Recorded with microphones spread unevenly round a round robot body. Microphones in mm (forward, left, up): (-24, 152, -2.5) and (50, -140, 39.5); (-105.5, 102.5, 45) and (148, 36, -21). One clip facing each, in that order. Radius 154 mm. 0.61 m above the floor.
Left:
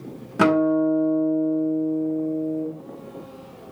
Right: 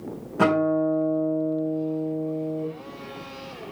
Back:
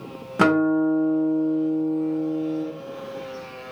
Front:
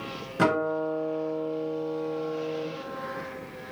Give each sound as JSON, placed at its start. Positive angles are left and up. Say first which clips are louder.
{"t": 0.4, "sound": "a guitar", "louder": "left 3 dB, back 8 dB", "azimuth_deg": 155, "distance_m": 2.0}